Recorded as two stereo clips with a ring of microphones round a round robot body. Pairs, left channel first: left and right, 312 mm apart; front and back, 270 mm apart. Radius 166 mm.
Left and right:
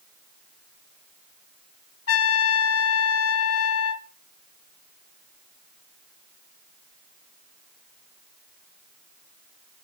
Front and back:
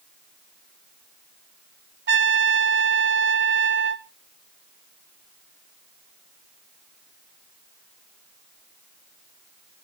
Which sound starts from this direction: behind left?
A trumpet, at 2.1 s.